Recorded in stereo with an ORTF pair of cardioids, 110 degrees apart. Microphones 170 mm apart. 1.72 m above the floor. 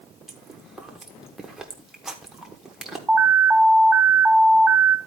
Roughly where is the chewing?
Ahead.